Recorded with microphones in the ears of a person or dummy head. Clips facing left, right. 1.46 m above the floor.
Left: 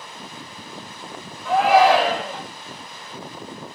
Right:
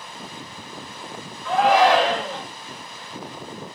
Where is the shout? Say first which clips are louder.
Left 2 dB; 10° left (ahead or behind), 0.7 m.